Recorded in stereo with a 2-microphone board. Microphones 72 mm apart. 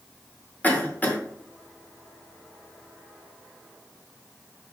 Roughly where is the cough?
Left.